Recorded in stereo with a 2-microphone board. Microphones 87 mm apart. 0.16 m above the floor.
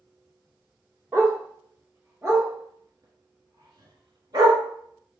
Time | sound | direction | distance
1.1 | a dog barking | 20° right (ahead or behind) | 1.9 m